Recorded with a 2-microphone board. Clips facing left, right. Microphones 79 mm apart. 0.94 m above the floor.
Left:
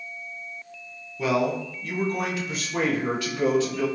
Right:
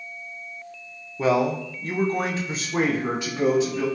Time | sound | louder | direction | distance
1.2 | a man speaking | right 3 dB | 30° right (ahead or behind) | 0.6 m